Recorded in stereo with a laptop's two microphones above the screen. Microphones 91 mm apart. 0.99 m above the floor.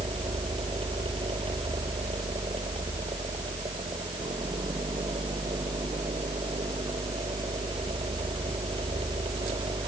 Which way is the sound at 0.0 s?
80° right.